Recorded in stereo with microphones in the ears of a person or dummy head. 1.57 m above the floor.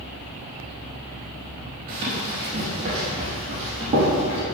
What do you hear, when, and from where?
1.9 s running footsteps: 20° right (ahead or behind), 1.7 m; by 4.4 s 30° right (ahead or behind), 3 m